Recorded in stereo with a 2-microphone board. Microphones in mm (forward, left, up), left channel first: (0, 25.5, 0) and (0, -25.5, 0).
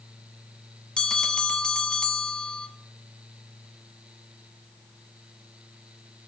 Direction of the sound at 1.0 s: 15° left (ahead or behind).